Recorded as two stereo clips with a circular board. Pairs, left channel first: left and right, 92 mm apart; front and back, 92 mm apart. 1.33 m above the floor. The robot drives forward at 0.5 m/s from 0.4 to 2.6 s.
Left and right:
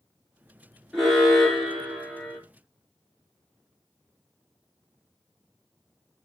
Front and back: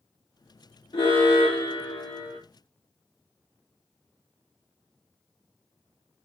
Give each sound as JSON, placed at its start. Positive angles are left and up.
{"t": 0.9, "sound": "an alarm", "azimuth_deg": 5, "distance_m": 3.5}